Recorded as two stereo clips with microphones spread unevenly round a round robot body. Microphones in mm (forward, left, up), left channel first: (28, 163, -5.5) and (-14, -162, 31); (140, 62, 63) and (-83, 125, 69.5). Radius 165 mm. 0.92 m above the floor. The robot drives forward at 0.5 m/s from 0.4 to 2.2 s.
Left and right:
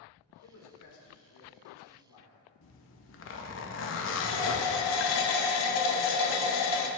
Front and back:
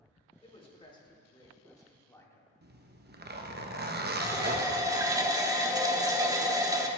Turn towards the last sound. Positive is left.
turn(degrees=90)